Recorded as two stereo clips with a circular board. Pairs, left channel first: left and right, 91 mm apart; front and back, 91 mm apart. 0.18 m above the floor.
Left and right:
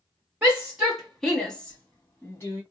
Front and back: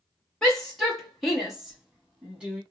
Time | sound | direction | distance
0.4 | a shout | 60° right | 1.3 m